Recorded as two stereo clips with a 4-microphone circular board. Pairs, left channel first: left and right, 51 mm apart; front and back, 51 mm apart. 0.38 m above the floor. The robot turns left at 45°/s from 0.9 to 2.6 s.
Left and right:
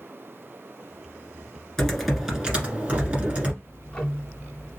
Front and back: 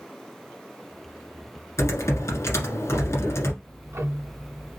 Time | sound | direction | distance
1.8 | typing on a keyboard | 10° left | 1.5 m
3.6 | ticking | 160° left | 1.0 m